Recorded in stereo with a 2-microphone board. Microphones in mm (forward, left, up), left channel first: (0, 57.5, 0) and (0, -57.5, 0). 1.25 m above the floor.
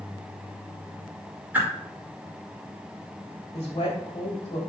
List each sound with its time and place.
1.5 s a whoosh: 15° right (ahead or behind), 2.5 m
3.5 s a woman speaking: 55° left (ahead or behind), 2.5 m